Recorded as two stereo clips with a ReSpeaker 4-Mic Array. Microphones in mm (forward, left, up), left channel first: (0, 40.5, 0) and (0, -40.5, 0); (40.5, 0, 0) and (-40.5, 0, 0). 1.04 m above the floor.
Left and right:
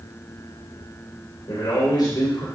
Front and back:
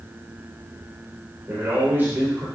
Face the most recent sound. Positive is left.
turn(degrees=115)